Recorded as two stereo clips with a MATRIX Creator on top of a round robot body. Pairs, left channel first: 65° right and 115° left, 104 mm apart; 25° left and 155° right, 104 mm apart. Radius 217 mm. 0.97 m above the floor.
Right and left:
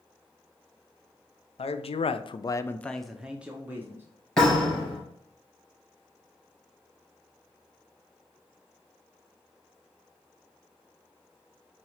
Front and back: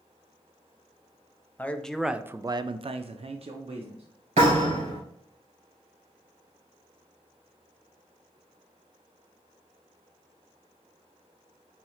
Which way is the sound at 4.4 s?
150° right.